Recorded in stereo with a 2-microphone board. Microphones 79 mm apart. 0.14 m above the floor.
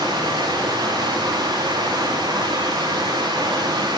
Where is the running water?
80° right, 9 m.